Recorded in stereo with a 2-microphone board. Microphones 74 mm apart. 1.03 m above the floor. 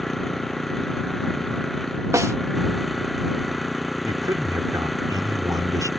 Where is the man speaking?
50° right (ahead or behind).